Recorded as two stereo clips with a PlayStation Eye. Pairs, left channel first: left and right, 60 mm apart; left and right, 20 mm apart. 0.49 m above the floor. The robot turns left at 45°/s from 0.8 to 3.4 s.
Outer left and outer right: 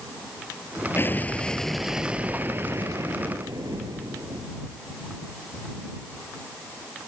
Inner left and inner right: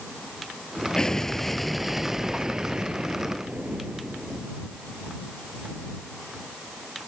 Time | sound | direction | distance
1.0 | an explosion | 35° left | ?